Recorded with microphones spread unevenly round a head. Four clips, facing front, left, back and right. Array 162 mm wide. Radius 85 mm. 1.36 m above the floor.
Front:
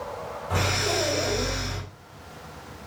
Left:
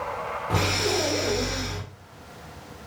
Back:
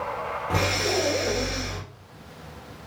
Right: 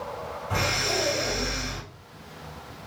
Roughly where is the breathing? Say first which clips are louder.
Left 2 dB, back 1 dB; behind left.